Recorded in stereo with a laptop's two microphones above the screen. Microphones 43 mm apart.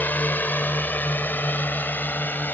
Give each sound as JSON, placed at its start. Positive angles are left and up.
{"t": 0.0, "sound": "a drone", "side_deg": 45}